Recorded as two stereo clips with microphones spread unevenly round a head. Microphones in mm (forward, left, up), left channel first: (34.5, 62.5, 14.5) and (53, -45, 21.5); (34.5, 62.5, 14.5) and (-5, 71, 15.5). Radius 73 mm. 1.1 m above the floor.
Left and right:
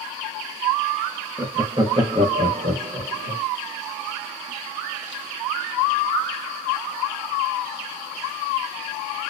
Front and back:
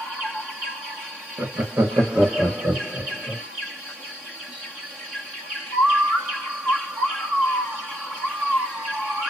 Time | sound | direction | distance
1.4 | laughter | 160° right | 0.6 m